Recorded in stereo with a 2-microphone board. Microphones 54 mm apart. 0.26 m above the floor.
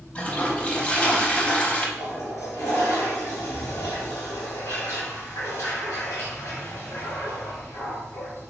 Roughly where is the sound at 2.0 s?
Left.